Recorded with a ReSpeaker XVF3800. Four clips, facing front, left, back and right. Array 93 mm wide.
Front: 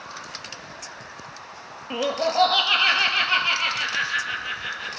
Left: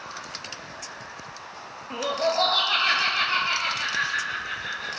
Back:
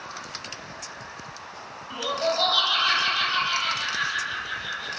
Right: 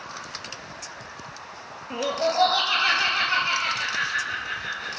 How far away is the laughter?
About 2.5 m.